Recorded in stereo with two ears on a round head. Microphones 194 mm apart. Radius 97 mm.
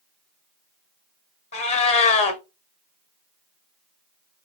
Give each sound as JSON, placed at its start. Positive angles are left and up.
{"t": 1.5, "sound": "a cat meowing", "side_deg": 30, "distance_m": 0.7}